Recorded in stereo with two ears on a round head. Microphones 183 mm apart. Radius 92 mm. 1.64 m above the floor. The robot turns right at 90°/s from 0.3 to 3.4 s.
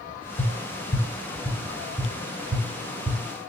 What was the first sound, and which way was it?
Tapping, 45° left (ahead or behind).